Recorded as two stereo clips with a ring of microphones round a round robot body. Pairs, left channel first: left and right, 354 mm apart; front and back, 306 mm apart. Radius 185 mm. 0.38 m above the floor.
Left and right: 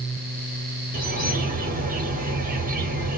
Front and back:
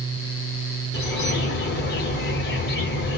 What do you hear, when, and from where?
0.9 s a bird: 35° right, 1.6 m